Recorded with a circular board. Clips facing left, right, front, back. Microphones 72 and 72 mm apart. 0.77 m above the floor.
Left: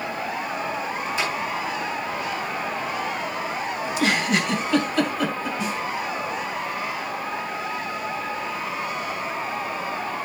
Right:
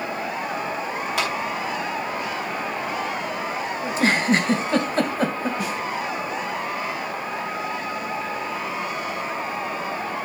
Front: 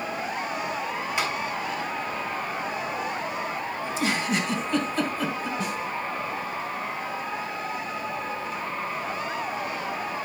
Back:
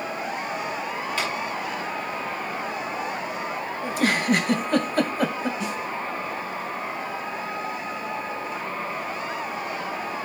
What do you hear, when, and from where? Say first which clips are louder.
1.2 s a clap: right 2 dB, front 1 dB; 75° right, 6 m
3.8 s a giggle: right 3 dB, back 5 dB; 145° right, 2 m
5.6 s a snare drum: even, even; 50° right, 8.5 m